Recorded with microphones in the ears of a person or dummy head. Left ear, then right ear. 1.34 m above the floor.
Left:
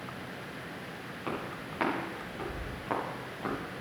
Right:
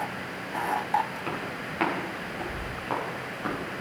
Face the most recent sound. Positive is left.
turn(degrees=0)  # may be behind; listen again after turning